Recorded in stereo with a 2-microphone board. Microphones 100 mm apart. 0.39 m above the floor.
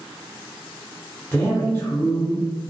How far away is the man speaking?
About 1.0 m.